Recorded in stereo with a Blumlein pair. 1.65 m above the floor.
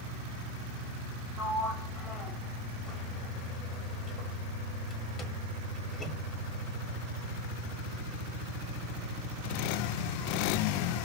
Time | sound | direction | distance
1.4 | a sliding door | 20° left | 1.4 m